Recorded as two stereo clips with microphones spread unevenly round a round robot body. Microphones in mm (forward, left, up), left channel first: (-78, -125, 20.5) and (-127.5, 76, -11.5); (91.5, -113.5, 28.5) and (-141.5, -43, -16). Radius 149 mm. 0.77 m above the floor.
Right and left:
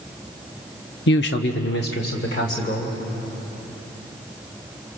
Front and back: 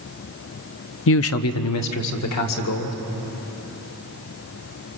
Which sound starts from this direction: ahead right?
A man speaking, at 1.1 s.